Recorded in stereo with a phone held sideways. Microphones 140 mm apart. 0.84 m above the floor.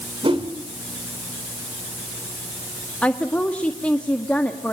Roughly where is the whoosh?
Right.